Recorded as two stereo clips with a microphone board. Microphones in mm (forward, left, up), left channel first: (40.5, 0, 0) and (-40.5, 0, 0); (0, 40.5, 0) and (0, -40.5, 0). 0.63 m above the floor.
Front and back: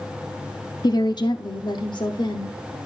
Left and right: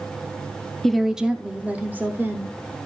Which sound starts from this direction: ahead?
A woman speaking, at 0.8 s.